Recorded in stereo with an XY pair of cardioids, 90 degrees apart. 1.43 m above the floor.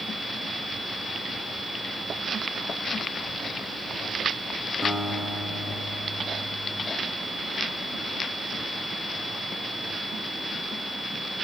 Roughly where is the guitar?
Ahead.